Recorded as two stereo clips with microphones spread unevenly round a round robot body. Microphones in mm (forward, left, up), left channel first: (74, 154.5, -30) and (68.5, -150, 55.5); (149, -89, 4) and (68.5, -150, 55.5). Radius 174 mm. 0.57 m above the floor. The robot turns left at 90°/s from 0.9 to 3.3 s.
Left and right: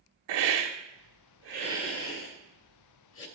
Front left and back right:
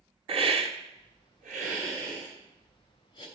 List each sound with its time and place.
0.3 s a hiss: 100° right, 1.3 m; by 3.3 s 45° left, 1.3 m